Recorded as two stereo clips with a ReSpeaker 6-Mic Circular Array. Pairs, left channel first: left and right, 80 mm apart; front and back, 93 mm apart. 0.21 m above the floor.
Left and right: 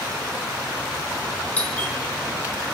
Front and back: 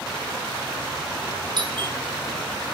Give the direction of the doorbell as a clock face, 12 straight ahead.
7 o'clock.